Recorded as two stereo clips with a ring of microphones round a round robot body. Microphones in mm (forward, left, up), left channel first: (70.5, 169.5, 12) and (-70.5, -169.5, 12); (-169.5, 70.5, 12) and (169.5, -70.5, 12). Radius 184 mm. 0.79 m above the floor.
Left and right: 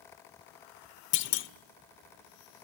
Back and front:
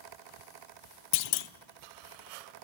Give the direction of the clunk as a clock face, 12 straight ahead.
8 o'clock.